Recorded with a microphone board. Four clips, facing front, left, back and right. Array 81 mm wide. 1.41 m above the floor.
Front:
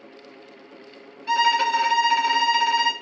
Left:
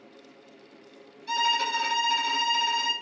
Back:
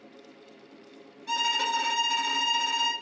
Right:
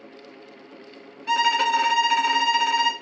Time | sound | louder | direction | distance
1.3 | a violin | right 6 dB, front 9 dB | 60° right | 1.3 m